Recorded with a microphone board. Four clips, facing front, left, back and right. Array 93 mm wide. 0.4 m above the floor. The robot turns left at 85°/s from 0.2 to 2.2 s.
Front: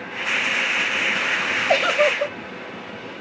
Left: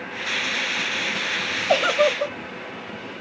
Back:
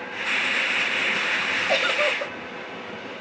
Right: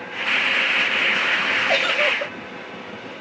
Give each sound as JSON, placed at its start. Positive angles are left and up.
{"t": 1.7, "sound": "a giggle", "azimuth_deg": 85, "distance_m": 1.3}